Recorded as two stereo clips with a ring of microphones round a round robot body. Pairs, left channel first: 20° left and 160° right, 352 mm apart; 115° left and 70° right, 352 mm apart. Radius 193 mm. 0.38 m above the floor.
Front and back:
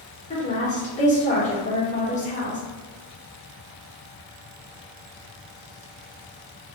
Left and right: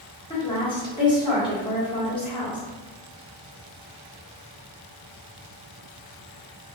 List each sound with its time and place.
0.3 s a woman speaking: 55° left, 1.4 m